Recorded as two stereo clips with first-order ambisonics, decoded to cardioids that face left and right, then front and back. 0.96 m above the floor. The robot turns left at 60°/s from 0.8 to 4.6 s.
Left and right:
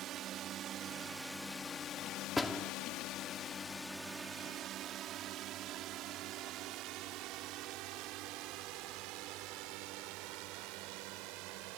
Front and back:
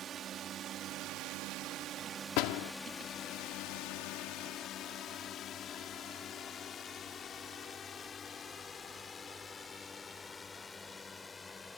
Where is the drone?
130° right; by 11.8 s 80° right.